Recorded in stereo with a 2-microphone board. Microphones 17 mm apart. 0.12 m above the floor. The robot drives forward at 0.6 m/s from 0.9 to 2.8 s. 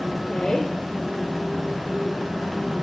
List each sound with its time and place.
0.3 s a woman speaking: 40° left (ahead or behind), 2.5 m